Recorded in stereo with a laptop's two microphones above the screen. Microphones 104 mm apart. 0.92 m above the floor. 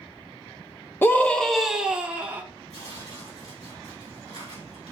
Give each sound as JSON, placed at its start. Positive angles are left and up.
{"t": 1.0, "sound": "a scream", "side_deg": 20, "distance_m": 0.6}
{"t": 2.7, "sound": "tearing paper", "side_deg": 80, "distance_m": 3.0}